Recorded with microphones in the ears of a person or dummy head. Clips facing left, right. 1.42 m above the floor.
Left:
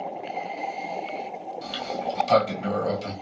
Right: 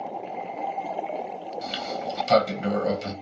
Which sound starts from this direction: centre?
A sliding door, at 1.6 s.